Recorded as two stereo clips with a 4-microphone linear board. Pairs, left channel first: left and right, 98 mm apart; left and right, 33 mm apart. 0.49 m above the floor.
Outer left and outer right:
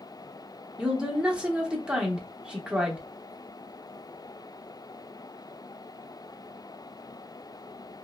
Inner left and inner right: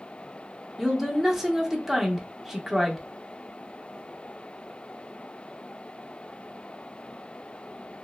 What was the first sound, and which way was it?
A woman speaking, 10° right (ahead or behind).